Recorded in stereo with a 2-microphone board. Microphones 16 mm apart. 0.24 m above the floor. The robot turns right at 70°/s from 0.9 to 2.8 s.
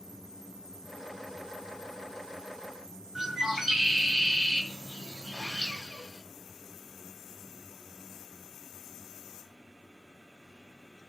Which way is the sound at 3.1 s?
10° right (ahead or behind).